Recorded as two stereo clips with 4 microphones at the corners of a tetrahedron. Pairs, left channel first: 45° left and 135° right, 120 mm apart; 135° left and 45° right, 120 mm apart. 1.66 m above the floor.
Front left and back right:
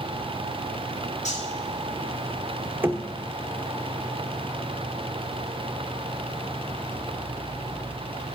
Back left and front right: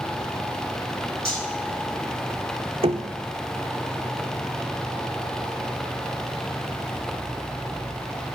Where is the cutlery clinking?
50° left, 6 m.